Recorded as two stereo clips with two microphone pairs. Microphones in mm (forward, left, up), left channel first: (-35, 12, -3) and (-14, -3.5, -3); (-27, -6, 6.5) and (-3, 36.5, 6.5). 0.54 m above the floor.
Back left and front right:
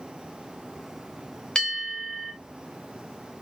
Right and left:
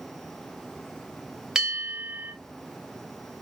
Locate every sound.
1.6 s a bell: 130° left, 1.2 m